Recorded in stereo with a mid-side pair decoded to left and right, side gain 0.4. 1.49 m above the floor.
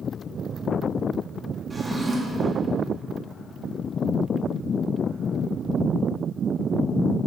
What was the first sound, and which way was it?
A drawer, 20° right.